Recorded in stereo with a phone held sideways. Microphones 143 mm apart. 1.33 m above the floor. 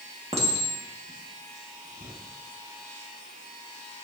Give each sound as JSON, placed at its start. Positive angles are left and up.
{"t": 0.3, "sound": "a clink", "side_deg": -45, "distance_m": 1.9}